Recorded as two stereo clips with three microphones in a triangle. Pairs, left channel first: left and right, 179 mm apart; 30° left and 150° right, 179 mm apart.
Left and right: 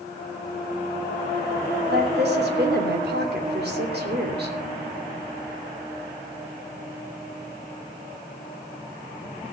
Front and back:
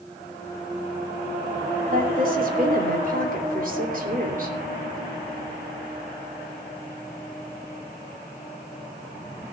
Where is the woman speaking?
110° right, 3 m.